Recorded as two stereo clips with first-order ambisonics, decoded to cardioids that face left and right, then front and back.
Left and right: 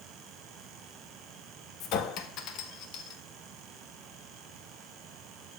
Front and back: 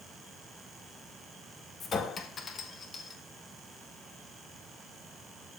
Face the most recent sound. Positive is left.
turn(degrees=65)